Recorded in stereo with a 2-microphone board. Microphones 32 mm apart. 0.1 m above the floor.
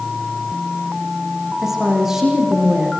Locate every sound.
1.6 s a woman speaking: 10° right (ahead or behind), 7 m